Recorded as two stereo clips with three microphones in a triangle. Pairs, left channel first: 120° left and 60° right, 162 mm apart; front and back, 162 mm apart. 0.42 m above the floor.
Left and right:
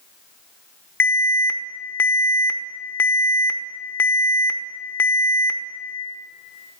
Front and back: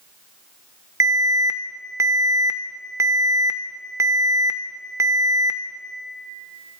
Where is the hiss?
I don't hear a hiss.